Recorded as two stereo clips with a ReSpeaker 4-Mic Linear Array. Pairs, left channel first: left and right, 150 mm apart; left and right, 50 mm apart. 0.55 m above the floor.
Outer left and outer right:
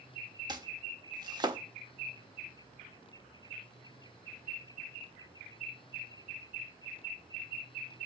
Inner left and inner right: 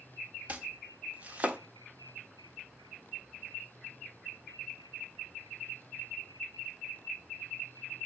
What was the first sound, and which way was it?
Chopping, 30° right (ahead or behind).